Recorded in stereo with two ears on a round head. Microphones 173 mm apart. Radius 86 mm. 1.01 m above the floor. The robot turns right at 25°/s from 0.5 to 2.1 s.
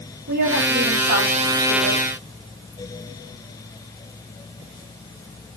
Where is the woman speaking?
125° right, 7.5 m; by 2.0 s 85° right, 7.5 m.